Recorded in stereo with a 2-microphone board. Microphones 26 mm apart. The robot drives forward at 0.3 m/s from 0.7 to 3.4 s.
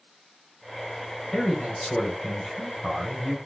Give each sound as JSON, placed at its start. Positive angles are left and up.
{"t": 1.3, "sound": "a man speaking", "side_deg": 25, "distance_m": 1.5}